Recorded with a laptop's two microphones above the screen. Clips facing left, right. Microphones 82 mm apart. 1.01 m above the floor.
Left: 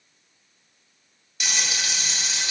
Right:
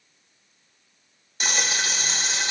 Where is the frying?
35° right (ahead or behind), 1.0 m.